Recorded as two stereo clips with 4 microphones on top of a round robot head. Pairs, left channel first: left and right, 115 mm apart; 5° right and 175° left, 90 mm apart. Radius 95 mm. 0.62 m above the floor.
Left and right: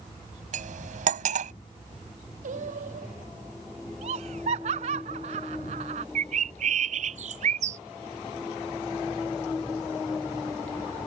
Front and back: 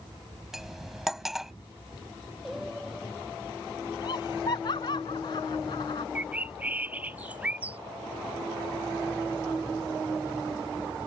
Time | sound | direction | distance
0.5 | cutlery clinking | 100° right | ?
2.4 | singing | 95° right | ?
4.0 | laughter | 55° right | ?
6.2 | a bird | 105° right | ?